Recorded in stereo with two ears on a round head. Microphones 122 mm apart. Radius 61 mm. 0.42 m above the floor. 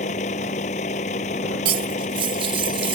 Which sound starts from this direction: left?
A vehicle, at 0.0 s.